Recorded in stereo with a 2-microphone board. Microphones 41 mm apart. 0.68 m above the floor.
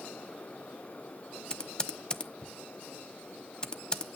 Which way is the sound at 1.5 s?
20° left (ahead or behind).